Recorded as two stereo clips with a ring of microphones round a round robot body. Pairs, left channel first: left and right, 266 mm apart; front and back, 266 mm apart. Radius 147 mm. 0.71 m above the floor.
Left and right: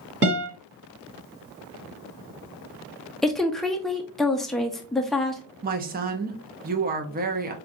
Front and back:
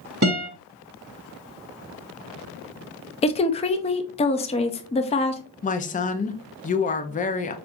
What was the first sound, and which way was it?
A guitar, 135° right.